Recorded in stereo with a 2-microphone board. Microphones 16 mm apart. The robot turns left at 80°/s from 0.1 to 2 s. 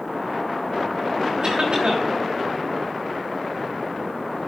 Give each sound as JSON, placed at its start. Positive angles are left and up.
{"t": 1.4, "sound": "a cough", "azimuth_deg": -60, "distance_m": 3.5}